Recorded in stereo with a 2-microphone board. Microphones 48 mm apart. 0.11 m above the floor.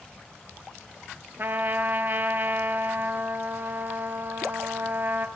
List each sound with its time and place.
1.4 s a trumpet: 45° right (ahead or behind), 1.4 m